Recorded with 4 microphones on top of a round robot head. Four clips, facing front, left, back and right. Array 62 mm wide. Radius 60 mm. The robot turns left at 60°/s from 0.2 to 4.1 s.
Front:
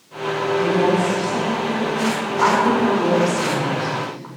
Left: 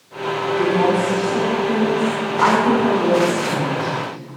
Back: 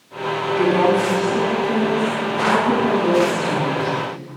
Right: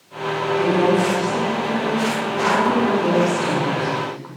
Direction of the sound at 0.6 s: 175° left.